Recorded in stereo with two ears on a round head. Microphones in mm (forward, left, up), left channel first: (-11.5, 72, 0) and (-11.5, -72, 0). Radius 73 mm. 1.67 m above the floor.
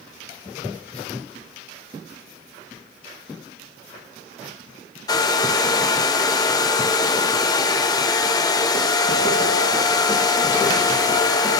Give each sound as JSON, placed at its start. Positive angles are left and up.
{"t": 5.1, "sound": "a hair dryer", "side_deg": 25, "distance_m": 0.6}